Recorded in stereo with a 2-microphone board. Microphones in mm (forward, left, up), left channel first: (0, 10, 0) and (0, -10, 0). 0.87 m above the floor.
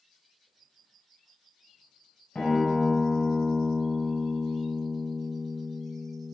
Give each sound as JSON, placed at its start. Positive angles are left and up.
{"t": 2.4, "sound": "a guitar", "side_deg": 70, "distance_m": 3.5}